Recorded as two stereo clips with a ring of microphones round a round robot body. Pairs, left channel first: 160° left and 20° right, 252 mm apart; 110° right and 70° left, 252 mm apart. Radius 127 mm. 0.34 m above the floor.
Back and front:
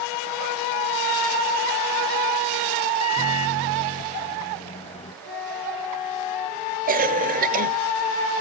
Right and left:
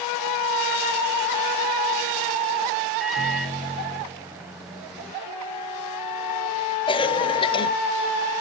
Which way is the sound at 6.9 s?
55° right.